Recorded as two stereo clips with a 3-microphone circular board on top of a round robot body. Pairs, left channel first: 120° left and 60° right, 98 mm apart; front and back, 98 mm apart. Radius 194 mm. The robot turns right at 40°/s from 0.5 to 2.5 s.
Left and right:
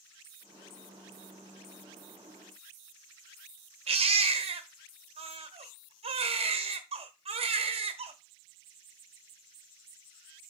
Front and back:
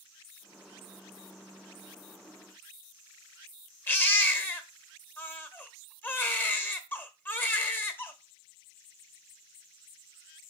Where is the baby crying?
70° right, 1.0 m.